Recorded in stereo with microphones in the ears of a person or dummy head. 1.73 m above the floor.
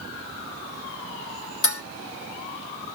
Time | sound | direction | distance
1.6 | dishes clattering | 55° left (ahead or behind) | 1.5 m